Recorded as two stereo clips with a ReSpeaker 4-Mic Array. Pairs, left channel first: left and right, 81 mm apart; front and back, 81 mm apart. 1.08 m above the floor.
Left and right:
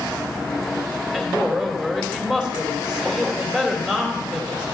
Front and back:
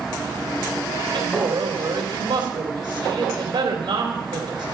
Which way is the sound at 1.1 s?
170° right.